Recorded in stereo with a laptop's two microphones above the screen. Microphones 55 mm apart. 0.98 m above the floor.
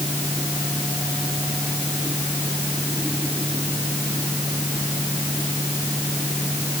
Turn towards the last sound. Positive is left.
turn(degrees=-25)  # may be behind; listen again after turning